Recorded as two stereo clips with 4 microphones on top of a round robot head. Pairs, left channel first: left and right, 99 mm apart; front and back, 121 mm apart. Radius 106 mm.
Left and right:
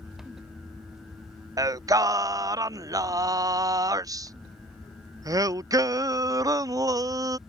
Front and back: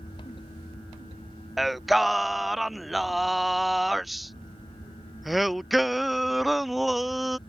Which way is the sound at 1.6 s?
90° right.